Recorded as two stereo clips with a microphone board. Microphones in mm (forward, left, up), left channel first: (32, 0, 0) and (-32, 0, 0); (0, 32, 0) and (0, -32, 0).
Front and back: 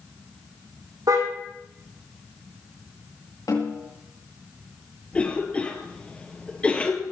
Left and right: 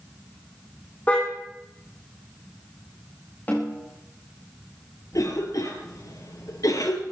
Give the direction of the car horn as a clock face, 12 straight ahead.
7 o'clock.